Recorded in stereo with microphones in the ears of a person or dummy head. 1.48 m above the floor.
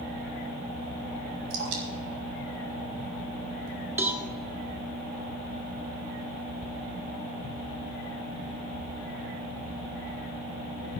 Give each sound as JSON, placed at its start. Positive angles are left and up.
{"t": 1.5, "sound": "dripping", "side_deg": -75, "distance_m": 3.0}
{"t": 4.0, "sound": "a cowbell", "side_deg": -10, "distance_m": 1.7}